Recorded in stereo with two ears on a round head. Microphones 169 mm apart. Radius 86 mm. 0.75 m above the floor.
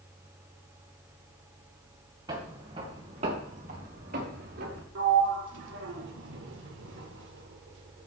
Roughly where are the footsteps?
Centre.